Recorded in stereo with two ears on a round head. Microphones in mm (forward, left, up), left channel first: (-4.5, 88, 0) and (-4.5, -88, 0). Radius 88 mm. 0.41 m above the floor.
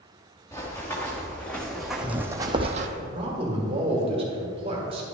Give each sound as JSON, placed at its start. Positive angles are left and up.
{"t": 0.5, "sound": "running footsteps", "side_deg": 15, "distance_m": 2.5}
{"t": 3.0, "sound": "a man speaking", "side_deg": -30, "distance_m": 1.6}